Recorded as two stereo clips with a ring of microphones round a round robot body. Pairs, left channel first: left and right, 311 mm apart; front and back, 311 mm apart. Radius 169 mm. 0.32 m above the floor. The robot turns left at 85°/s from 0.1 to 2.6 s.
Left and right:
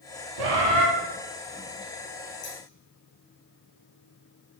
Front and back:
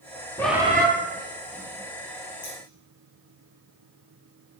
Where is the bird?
80° right, 2 m; by 0.9 s 120° right, 2 m.